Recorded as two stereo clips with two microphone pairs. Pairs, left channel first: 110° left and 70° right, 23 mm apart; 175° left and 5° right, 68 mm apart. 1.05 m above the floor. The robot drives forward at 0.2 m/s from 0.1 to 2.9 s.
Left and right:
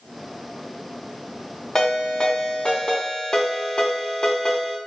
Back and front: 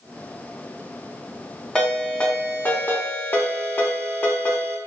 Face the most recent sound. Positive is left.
turn(degrees=130)